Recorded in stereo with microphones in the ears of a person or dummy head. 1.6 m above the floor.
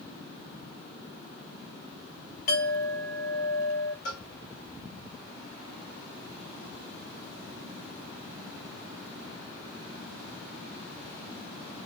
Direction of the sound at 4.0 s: 55° left (ahead or behind).